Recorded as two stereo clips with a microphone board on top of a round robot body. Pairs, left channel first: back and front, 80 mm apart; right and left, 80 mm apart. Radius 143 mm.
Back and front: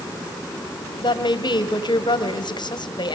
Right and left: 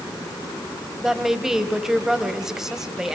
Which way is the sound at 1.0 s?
175° left.